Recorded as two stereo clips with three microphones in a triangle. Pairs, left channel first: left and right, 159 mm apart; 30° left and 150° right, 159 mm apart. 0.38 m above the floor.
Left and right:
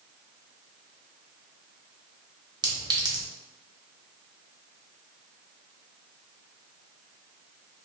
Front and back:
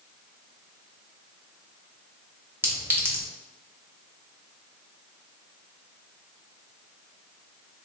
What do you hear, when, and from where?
2.6 s a clink: 95° right, 0.6 m